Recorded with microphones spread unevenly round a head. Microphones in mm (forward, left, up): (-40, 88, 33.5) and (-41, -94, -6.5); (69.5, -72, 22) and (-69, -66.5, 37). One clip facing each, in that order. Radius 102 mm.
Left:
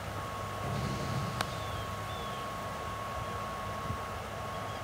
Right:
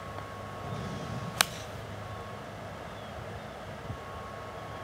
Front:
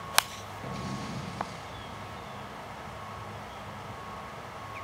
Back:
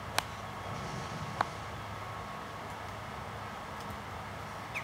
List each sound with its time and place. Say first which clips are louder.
0.6 s an explosion: left 2 dB, front 6 dB; 20° left, 4.5 m